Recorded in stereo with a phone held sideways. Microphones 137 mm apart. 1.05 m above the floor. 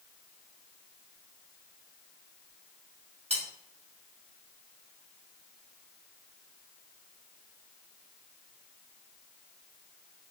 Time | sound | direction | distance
3.3 | cutlery clinking | 50° right (ahead or behind) | 2 m